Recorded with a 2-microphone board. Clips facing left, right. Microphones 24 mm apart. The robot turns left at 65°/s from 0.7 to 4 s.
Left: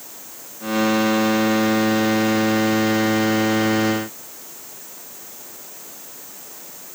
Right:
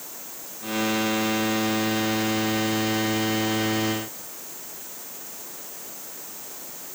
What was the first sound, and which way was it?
Only background noise.